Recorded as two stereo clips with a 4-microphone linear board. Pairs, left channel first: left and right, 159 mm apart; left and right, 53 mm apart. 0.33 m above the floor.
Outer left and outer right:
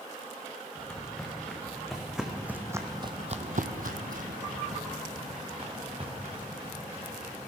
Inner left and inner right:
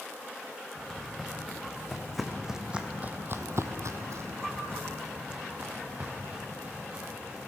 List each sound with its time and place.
0.8 s footsteps: 10° left (ahead or behind), 2.5 m; by 7.5 s 35° right (ahead or behind), 4 m